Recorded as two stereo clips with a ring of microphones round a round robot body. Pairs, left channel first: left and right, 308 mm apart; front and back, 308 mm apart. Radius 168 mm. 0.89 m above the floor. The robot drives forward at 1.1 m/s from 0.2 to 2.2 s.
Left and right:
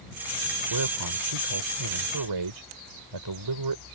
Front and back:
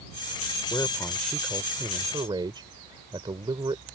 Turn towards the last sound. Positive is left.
turn(degrees=-105)